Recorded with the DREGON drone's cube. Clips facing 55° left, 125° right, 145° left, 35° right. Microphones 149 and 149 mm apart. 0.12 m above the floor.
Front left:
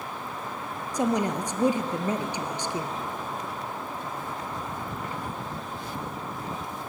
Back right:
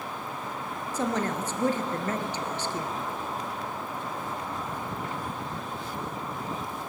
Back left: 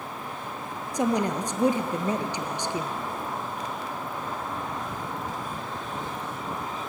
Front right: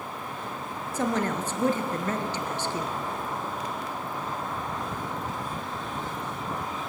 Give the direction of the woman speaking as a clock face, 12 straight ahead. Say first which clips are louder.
Front left 3 dB, back left 2 dB; 9 o'clock.